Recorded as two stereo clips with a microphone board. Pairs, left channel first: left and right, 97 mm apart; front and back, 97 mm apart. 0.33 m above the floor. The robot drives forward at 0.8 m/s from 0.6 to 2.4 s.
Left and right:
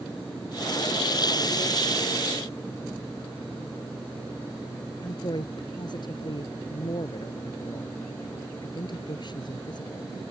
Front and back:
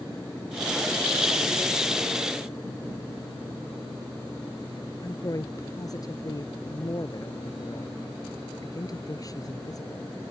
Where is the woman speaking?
50° left.